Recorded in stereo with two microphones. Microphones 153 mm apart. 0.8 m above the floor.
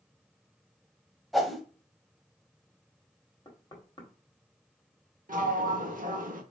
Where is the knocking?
30° left (ahead or behind), 1.5 m.